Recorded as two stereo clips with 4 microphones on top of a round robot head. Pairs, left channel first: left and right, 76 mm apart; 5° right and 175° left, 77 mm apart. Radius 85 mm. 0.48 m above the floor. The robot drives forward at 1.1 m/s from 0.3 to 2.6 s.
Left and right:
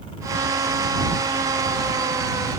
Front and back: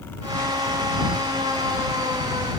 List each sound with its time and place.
Only background noise.